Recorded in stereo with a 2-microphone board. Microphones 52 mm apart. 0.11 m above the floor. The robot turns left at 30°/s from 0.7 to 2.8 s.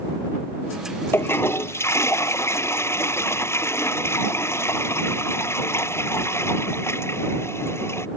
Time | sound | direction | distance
1.1 | a toilet flushing | 125° left | ?